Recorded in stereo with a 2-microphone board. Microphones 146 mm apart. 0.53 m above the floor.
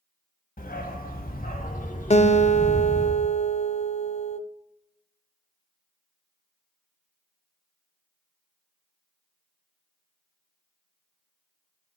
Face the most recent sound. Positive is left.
turn(degrees=50)  # may be behind; listen again after turning